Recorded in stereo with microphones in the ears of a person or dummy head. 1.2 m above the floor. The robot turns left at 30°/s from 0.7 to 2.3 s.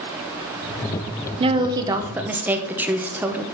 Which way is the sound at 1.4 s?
25° right (ahead or behind).